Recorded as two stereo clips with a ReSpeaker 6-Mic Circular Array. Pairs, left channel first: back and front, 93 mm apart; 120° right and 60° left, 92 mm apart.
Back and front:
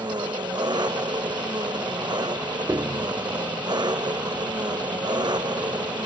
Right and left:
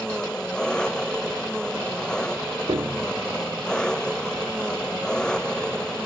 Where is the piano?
50° left.